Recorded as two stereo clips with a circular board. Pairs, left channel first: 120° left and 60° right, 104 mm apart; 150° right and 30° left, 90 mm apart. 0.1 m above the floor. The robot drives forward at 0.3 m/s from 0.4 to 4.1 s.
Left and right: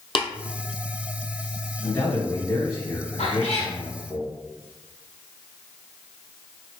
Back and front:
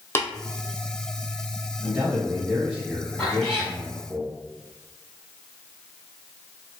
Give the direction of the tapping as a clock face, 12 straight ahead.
7 o'clock.